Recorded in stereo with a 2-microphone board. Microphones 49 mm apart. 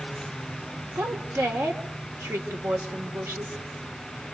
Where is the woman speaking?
85° right, 3.5 m.